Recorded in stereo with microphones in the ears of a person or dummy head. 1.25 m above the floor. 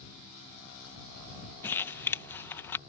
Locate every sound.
1.6 s crumpling: 15° left (ahead or behind)